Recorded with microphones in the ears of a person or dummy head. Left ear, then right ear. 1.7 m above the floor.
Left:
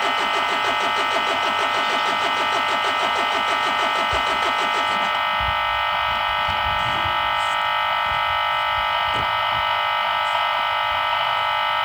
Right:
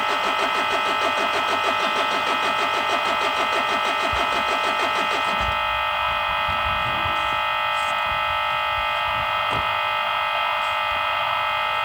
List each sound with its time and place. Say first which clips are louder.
0.0 s a machine running: left 1 dB; 15° left (ahead or behind), 5.5 m